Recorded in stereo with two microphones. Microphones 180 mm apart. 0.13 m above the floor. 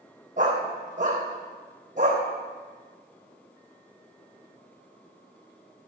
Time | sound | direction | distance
0.4 | a dog barking | 40° right (ahead or behind) | 3 m